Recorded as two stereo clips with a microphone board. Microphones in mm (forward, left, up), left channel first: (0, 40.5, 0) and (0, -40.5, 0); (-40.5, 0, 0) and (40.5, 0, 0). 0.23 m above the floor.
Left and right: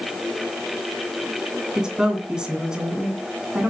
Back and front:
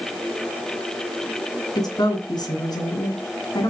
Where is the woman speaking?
170° right, 2.5 m.